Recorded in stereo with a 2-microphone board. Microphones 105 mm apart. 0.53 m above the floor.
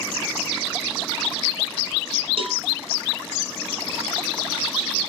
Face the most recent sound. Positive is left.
turn(degrees=-55)  # may be behind; listen again after turning